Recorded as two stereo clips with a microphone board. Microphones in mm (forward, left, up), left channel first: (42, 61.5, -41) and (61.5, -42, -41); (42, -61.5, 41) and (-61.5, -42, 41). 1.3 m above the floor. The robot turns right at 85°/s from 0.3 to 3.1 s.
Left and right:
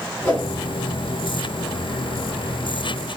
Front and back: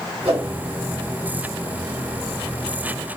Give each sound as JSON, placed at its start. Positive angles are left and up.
{"t": 0.2, "sound": "a whoosh", "azimuth_deg": 175, "distance_m": 1.9}